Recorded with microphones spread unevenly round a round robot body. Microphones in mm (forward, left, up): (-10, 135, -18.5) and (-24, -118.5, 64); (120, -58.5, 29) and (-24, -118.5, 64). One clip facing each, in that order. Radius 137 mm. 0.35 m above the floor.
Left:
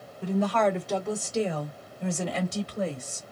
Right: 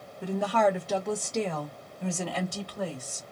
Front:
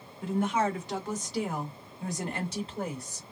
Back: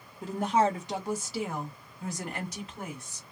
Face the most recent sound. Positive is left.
turn(degrees=45)